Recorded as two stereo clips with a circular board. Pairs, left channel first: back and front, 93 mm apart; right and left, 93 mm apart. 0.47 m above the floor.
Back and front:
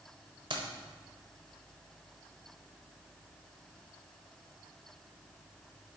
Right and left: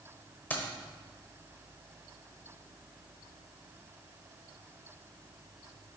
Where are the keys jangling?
20° right, 1.2 m.